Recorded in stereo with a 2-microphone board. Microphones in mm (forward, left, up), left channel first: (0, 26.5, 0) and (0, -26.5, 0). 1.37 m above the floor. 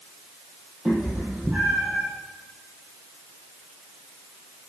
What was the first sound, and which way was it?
A cat meowing, 25° right (ahead or behind).